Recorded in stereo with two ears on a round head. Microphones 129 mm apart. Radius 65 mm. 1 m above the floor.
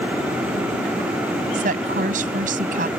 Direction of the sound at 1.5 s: 60° right (ahead or behind).